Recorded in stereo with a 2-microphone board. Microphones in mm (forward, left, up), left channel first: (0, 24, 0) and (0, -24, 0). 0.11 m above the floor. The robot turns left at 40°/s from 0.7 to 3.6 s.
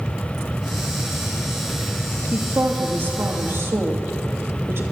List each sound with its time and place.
2.3 s a woman speaking: 25° right, 2 m; by 4.8 s 80° right, 2 m